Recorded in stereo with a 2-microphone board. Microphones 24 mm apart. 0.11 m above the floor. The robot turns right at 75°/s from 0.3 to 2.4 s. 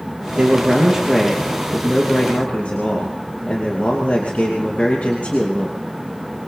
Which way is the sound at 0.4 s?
65° right.